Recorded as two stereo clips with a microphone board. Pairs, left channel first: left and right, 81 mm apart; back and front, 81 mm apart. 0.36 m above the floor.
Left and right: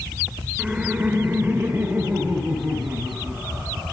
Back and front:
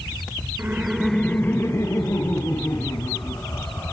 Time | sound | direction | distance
0.6 | laughter | 25° right | 1.0 m